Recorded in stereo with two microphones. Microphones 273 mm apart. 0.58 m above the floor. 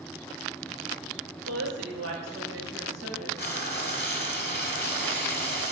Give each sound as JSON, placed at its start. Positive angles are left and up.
{"t": 1.5, "sound": "a woman speaking", "side_deg": -60, "distance_m": 2.5}
{"t": 3.4, "sound": "frying", "side_deg": 35, "distance_m": 1.3}